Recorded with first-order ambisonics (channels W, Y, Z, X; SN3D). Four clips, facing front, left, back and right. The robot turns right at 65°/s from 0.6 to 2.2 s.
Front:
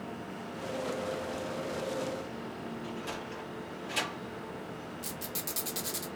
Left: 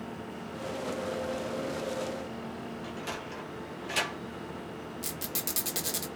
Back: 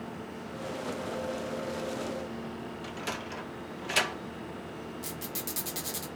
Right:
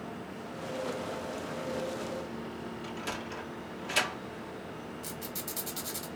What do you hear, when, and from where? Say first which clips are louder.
2.8 s a sliding door: right 2 dB, back 5 dB; 170° right, 1.0 m
5.0 s a squeak: left 3 dB, even; 90° left, 1.5 m